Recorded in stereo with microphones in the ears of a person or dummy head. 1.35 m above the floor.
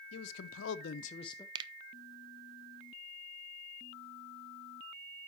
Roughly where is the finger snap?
Right.